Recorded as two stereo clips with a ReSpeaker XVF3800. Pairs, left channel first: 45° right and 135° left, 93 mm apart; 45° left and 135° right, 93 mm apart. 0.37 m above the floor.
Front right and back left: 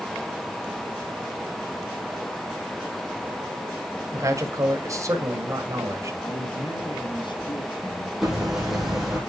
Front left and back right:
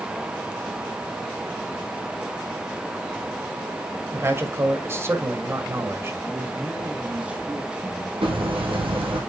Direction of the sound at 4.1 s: 175° left.